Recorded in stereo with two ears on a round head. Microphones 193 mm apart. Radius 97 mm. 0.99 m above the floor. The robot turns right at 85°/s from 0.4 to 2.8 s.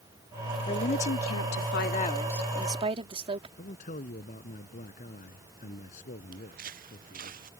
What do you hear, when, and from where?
0.7 s a woman speaking: 25° left; by 3.5 s 150° right
3.6 s a man speaking: 40° left (ahead or behind)
6.3 s footsteps: 40° right (ahead or behind)